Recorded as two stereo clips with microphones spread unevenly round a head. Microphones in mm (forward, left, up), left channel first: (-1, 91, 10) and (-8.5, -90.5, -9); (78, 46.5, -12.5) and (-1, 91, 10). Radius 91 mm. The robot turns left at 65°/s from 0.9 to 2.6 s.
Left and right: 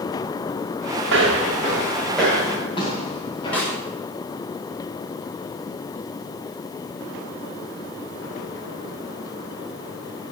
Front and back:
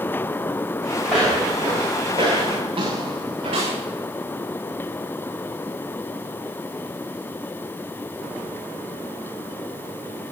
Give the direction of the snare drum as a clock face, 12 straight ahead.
6 o'clock.